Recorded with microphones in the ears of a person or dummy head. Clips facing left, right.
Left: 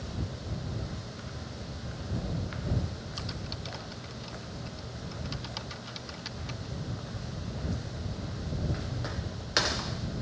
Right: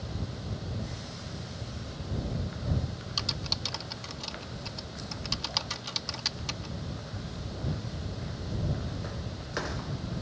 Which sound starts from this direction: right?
Typing on a keyboard, at 3.2 s.